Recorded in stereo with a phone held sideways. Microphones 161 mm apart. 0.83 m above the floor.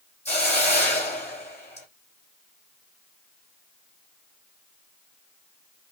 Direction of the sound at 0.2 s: 40° left (ahead or behind).